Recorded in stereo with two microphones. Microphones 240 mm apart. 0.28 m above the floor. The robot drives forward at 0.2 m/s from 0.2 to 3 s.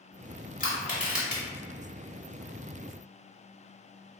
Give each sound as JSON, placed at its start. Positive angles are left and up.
{"t": 0.6, "sound": "crushing", "side_deg": 30, "distance_m": 1.2}